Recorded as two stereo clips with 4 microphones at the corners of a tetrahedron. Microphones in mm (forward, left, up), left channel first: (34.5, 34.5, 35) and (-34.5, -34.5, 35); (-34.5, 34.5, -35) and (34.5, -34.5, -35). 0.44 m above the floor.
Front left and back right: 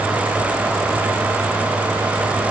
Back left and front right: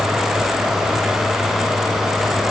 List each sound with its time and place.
Only background noise.